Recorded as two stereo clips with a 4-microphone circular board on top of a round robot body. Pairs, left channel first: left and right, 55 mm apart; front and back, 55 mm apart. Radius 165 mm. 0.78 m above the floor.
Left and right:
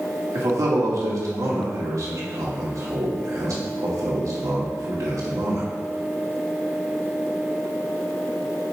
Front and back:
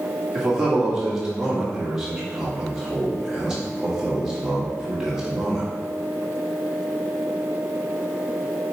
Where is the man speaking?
100° right, 2 m.